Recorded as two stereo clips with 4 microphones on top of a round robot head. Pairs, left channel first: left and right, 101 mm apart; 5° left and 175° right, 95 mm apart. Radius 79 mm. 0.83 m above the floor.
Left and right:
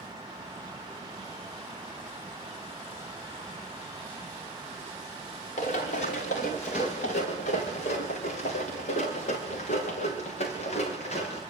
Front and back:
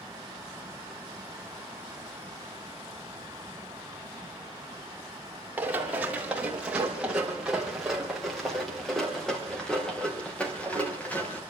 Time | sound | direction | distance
5.6 | running footsteps | 110° left | 6 m